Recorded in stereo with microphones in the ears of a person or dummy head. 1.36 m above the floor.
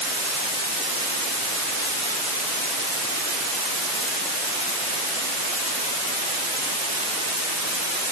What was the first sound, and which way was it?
Only background noise.